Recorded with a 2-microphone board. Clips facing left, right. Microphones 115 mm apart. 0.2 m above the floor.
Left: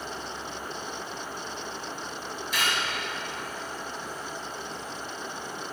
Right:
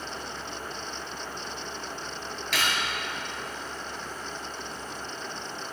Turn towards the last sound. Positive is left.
turn(degrees=-70)  # may be behind; listen again after turning